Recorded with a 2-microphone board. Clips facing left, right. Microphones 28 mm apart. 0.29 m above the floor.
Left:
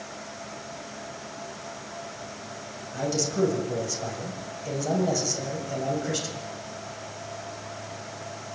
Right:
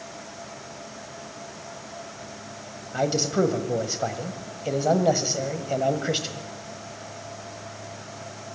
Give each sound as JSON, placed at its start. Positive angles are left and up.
{"t": 2.9, "sound": "a man speaking", "side_deg": -35, "distance_m": 1.6}